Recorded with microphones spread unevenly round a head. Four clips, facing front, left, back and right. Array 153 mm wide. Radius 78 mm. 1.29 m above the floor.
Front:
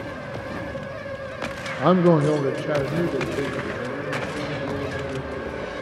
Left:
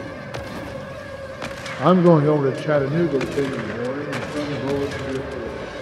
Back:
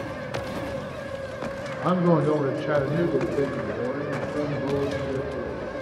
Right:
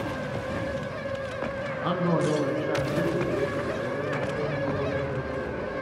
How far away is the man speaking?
About 0.7 m.